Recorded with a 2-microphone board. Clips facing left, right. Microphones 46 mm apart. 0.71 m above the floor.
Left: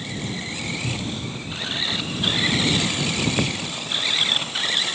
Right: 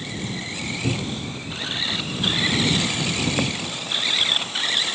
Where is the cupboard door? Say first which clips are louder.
Right 2 dB; 60° right (ahead or behind).